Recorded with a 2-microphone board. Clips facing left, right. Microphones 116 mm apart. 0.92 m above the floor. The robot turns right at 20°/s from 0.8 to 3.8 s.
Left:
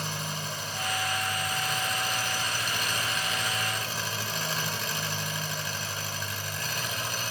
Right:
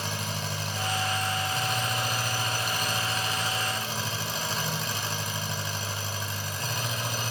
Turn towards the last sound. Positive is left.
turn(degrees=-25)